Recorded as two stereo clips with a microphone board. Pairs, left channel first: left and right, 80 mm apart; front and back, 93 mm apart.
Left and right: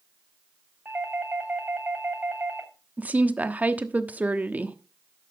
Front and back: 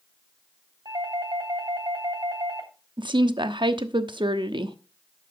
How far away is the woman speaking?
About 1.0 m.